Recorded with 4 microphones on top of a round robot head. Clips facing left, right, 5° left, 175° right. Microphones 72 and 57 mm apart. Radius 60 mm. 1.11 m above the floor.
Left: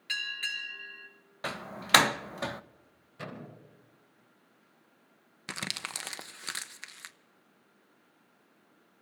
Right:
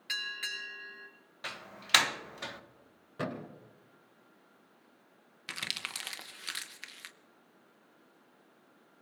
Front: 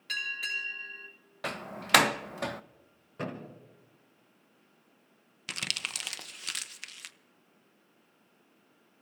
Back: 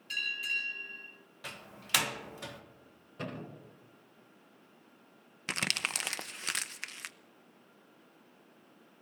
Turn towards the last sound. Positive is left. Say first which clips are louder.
# left 2 dB, back 3 dB
turn(degrees=140)